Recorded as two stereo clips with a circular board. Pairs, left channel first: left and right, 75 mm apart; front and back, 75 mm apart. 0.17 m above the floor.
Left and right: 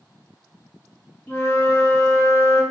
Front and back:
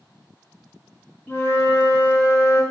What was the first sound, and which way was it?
A flute, 45° left.